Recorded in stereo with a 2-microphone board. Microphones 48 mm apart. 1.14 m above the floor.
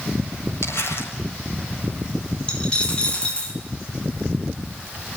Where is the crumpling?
65° left (ahead or behind), 7.5 m.